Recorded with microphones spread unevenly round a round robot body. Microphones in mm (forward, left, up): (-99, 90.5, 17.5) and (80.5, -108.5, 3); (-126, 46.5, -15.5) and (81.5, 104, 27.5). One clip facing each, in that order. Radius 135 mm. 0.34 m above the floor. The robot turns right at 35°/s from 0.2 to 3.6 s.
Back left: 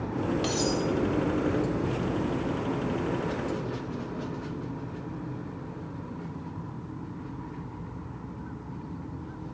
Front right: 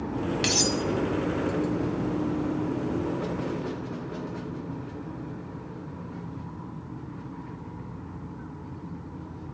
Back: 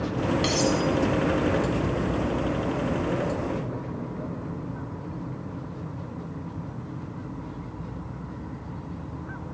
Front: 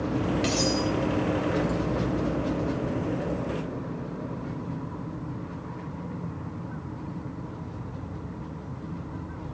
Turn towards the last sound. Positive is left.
turn(degrees=25)